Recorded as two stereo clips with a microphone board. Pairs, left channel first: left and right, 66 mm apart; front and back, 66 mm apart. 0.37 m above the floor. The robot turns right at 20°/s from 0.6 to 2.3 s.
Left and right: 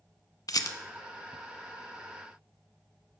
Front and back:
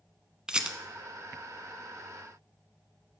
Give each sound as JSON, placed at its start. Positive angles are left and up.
{"t": 0.5, "sound": "a rattle", "azimuth_deg": 105, "distance_m": 0.6}